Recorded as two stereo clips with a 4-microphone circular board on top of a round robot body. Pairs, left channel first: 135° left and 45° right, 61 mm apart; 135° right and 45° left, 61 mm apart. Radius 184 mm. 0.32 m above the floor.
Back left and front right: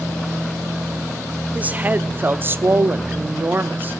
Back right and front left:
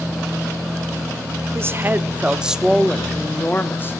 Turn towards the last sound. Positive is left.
turn(degrees=-95)